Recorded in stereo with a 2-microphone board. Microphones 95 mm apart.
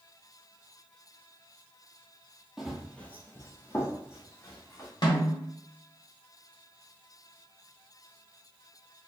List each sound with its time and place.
2.6 s running footsteps: 5° right (ahead or behind), 0.7 m; by 4.9 s 25° left (ahead or behind), 1.9 m
5.0 s a snare drum: 65° left (ahead or behind), 1.3 m